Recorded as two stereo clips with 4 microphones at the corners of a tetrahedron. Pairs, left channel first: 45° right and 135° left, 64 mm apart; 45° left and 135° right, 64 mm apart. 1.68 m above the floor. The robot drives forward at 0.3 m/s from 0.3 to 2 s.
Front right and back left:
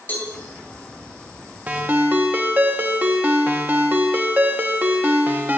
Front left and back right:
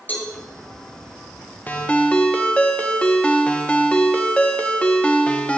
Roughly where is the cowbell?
Ahead.